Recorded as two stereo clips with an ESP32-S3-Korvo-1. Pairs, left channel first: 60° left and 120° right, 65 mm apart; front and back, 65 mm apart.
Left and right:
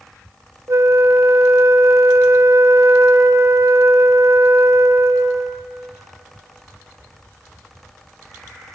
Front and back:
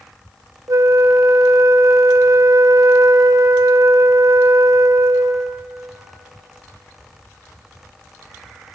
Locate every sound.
0.7 s a flute: 155° right, 0.5 m